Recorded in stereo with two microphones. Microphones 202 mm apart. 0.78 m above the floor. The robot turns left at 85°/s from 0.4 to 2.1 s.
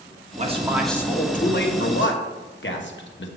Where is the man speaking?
140° right, 1.1 m; by 3.3 s 75° left, 1.1 m.